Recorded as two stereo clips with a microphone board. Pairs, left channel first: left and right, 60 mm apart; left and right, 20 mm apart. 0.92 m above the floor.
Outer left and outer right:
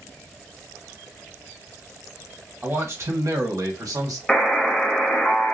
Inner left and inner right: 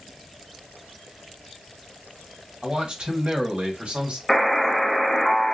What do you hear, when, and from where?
2.6 s a man speaking: 40° right (ahead or behind), 1.6 m; by 4.2 s 70° right (ahead or behind), 1.5 m
4.3 s a buzzer: 10° left (ahead or behind), 0.7 m